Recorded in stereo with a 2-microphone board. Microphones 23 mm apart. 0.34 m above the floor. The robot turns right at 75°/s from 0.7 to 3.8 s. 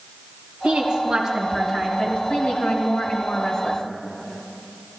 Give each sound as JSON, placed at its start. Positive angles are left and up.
{"t": 0.6, "sound": "a woman speaking", "azimuth_deg": -60, "distance_m": 2.5}